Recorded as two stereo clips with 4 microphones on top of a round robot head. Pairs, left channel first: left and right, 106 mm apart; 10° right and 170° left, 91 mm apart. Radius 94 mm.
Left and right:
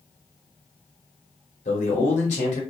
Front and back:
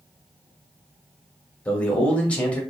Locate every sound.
1.6 s a man speaking: 65° left, 1.1 m